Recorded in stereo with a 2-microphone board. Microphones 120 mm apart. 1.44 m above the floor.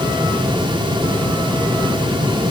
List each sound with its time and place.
Only background noise.